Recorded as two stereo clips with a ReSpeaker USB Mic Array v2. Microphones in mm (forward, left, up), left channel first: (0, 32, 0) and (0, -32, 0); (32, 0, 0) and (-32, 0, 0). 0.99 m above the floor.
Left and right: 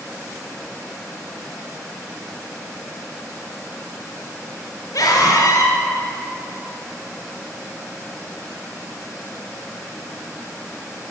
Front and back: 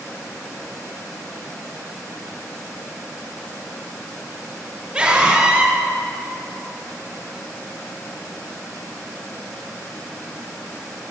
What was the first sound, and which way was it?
A scream, 105° left.